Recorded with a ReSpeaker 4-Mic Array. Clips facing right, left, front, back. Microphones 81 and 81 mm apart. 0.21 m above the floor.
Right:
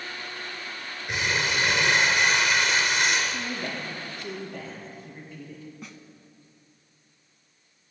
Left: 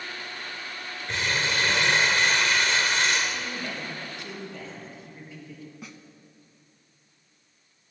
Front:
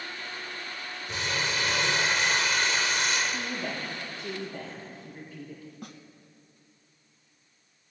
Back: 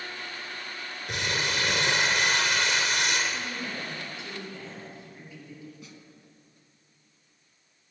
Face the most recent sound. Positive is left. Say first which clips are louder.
# even, front 4 dB
turn(degrees=5)